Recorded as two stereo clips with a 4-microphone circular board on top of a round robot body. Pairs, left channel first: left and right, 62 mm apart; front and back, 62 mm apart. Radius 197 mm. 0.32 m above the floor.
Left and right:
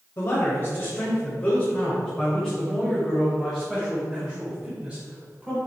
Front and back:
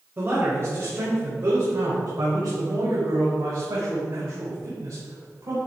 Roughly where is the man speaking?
Behind left.